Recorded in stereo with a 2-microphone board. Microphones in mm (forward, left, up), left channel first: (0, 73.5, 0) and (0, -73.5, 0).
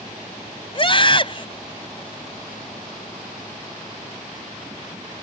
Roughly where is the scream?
Left.